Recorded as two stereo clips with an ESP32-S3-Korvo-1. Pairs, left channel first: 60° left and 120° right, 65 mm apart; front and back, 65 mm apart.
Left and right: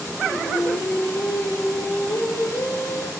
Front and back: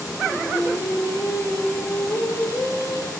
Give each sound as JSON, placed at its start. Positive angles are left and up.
{"t": 0.2, "sound": "singing", "azimuth_deg": 45, "distance_m": 2.5}